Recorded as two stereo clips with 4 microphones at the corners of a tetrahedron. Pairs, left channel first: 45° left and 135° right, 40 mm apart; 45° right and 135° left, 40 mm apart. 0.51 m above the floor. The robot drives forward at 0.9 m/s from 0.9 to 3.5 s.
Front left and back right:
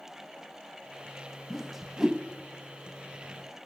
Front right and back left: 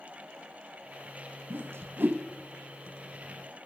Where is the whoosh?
130° left, 1.0 m; by 2.2 s 150° left, 1.5 m.